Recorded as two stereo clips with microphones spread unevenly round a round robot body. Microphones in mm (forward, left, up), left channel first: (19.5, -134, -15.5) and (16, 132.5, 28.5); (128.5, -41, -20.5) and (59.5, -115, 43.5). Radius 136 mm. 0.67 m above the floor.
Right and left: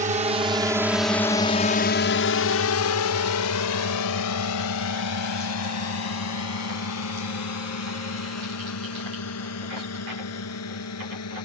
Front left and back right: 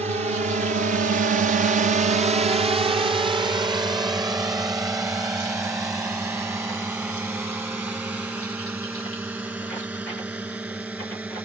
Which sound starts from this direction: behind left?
A drone, at 0.0 s.